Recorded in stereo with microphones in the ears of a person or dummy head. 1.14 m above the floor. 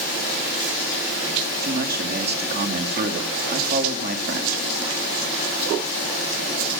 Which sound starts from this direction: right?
A man speaking, at 1.6 s.